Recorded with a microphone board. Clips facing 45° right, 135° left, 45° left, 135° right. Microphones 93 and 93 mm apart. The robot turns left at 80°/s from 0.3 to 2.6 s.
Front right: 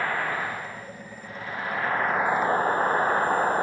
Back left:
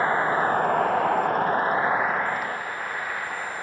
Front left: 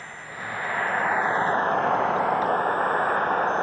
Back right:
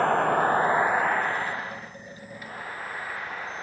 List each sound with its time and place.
0.0 s a vehicle: 160° right; by 3.6 s 5° left